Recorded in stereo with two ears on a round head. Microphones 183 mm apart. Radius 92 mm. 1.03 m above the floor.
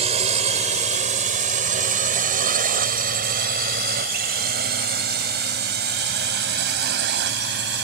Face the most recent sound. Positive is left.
turn(degrees=-55)  # may be behind; listen again after turning